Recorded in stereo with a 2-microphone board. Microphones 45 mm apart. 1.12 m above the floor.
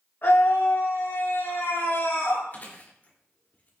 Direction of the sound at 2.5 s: 40° left (ahead or behind).